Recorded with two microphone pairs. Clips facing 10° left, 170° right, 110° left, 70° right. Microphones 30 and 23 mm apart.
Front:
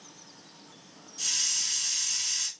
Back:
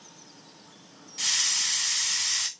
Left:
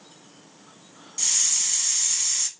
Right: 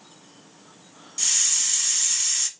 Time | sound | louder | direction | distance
1.2 | a hiss | back 4 dB, right 1 dB | 160° right | 0.7 m